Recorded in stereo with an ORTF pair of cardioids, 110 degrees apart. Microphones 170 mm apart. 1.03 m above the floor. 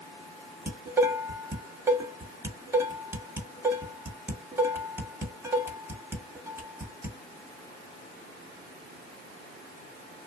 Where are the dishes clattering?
15° right, 1.5 m.